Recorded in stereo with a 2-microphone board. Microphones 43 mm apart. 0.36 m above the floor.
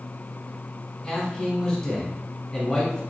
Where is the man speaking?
20° left (ahead or behind), 1.2 m.